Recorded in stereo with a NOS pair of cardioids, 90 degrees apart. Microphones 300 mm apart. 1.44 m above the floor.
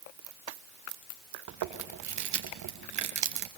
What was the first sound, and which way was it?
Chewing, 65° right.